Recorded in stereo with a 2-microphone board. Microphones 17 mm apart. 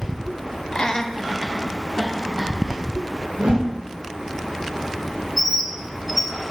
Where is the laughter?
55° left (ahead or behind), 0.8 m; by 2.8 s 75° right (ahead or behind), 2.5 m.